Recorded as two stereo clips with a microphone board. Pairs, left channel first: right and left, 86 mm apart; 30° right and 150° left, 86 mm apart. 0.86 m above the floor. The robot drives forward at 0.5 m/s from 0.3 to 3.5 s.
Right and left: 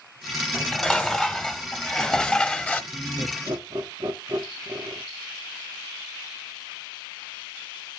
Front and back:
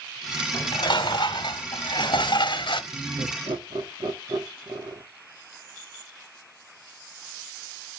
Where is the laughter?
115° left, 1.6 m; by 5.0 s 125° left, 1.7 m.